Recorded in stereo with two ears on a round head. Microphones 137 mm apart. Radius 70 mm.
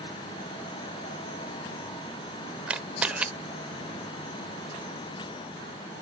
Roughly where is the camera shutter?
Centre.